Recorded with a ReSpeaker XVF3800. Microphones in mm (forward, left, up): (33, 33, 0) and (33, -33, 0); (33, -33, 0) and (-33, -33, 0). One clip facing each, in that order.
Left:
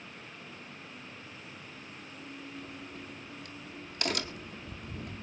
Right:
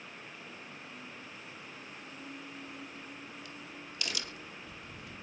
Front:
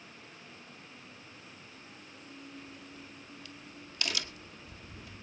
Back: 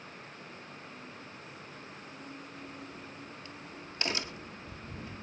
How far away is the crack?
About 1.2 m.